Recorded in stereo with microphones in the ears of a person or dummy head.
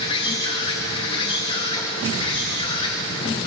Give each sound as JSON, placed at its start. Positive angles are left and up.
{"t": 0.0, "sound": "an insect", "side_deg": 25, "distance_m": 2.5}